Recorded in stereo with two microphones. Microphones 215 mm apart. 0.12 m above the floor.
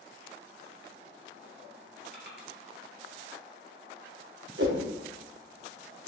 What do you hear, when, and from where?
2.1 s crushing: 55° right (ahead or behind), 1.0 m
4.6 s a whoosh: 65° right (ahead or behind), 0.8 m